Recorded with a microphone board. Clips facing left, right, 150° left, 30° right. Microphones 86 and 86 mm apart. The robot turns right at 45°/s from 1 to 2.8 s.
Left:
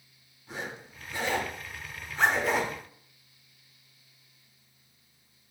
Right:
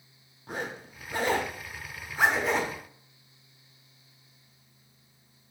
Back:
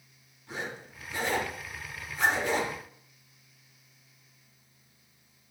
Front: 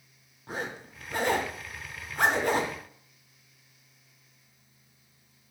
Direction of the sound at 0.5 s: 65° right.